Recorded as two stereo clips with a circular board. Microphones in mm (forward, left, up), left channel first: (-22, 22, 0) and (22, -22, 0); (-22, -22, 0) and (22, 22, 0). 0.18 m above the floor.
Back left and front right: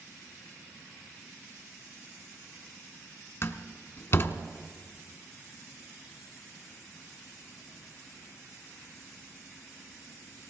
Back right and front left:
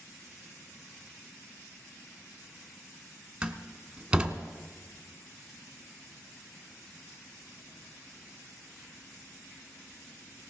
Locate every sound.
3.4 s a door slam: 115° left, 1.0 m